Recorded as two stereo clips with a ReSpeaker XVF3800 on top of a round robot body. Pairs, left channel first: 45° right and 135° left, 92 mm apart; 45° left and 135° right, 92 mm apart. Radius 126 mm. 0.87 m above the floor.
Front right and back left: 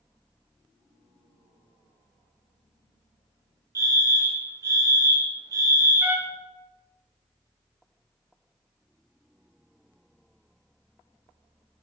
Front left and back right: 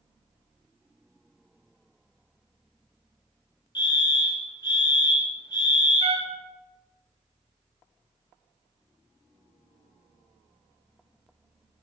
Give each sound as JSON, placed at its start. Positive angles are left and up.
{"t": 3.8, "sound": "a fire alarm", "azimuth_deg": 80, "distance_m": 3.0}
{"t": 6.0, "sound": "a trumpet", "azimuth_deg": -150, "distance_m": 1.6}